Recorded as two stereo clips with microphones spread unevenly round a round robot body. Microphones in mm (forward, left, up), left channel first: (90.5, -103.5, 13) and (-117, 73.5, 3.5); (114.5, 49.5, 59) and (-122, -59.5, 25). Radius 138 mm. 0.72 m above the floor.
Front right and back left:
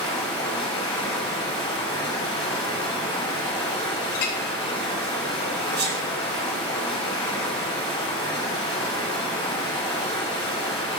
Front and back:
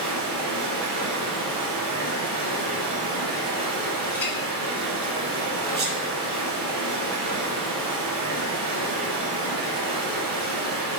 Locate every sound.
0.0 s running water: 130° right, 2 m
4.2 s a clink: 60° right, 0.8 m
5.8 s a sneeze: straight behind, 0.8 m